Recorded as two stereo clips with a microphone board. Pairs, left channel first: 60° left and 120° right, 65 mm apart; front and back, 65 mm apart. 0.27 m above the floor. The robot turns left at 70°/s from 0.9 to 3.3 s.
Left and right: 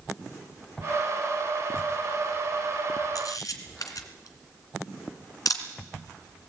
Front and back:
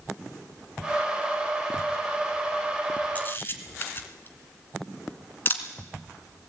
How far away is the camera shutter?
About 2 m.